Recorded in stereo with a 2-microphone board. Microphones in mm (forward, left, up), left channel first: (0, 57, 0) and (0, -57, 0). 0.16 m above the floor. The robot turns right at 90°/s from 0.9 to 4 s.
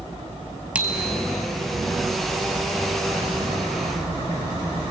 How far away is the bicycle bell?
About 2.5 m.